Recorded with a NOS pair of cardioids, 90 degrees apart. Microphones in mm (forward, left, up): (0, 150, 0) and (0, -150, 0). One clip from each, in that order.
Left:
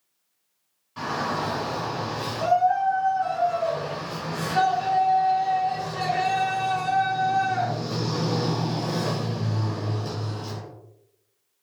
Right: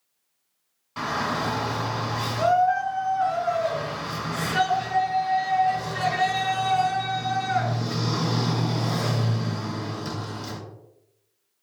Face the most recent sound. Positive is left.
turn(degrees=-40)